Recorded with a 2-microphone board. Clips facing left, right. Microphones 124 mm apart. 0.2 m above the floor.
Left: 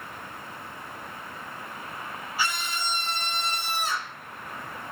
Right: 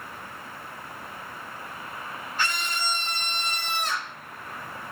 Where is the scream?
5° left (ahead or behind), 2 m.